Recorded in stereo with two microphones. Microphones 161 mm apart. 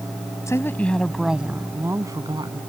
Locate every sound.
0.5 s a woman speaking: 20° left (ahead or behind); by 2.6 s 30° right (ahead or behind)